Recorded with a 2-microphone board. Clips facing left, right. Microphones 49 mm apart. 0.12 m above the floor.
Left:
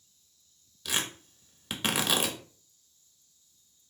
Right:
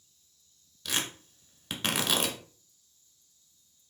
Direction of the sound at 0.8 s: 5° left (ahead or behind).